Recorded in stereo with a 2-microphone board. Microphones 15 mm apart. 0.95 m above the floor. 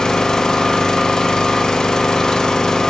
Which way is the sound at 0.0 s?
55° left (ahead or behind).